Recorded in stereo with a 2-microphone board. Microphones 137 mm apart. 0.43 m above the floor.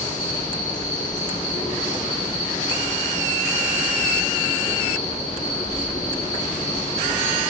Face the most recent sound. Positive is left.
turn(degrees=65)  # may be behind; listen again after turning